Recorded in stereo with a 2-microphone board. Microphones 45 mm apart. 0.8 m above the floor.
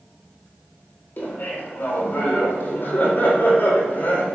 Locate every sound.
1.2 s laughter: 60° left (ahead or behind), 3.5 m